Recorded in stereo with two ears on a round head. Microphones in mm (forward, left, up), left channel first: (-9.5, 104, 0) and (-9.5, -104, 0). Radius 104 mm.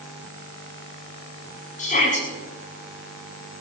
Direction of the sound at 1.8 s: 35° left (ahead or behind).